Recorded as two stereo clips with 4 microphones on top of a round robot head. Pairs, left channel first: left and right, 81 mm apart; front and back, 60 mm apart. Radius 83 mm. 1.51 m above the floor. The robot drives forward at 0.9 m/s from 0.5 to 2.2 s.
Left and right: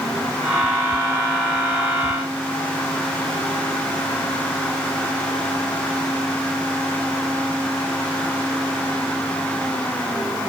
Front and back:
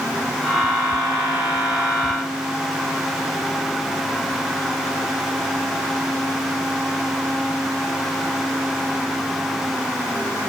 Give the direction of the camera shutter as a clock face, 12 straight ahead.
I don't hear a camera shutter.